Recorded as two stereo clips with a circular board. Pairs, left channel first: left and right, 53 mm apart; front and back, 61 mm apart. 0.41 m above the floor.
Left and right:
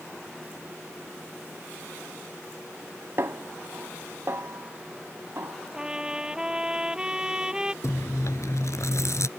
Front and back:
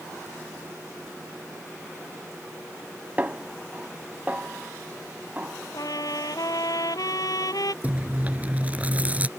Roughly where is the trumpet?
Ahead.